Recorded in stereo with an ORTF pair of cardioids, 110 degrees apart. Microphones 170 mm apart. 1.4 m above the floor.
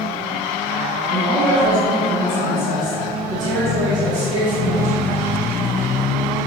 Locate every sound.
1.1 s a man speaking: 40° right, 2 m